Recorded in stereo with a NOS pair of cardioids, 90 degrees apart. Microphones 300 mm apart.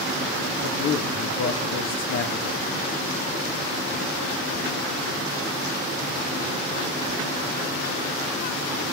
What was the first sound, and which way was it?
A man speaking, 60° left.